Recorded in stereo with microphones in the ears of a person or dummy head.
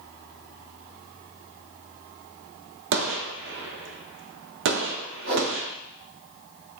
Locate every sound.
2.9 s a gunshot: 65° right (ahead or behind), 1.1 m
5.3 s a whoosh: 65° right (ahead or behind), 2.5 m